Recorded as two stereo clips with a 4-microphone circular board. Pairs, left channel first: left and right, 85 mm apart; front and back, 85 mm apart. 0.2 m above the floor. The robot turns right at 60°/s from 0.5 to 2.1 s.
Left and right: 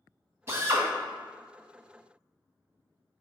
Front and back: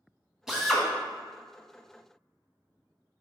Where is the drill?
100° right, 0.8 m; by 0.8 s 80° right, 0.8 m.